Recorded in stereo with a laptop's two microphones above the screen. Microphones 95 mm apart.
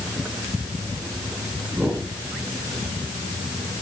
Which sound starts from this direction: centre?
A whoosh, at 1.7 s.